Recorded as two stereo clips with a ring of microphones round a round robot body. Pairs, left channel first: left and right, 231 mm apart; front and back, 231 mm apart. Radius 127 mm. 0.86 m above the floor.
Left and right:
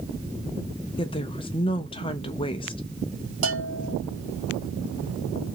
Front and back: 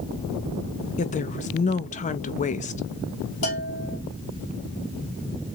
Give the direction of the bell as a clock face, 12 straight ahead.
2 o'clock.